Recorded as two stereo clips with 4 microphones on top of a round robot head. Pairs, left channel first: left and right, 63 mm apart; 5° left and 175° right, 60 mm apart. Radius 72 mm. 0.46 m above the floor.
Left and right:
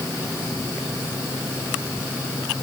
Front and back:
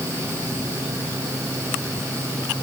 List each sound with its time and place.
Only background noise.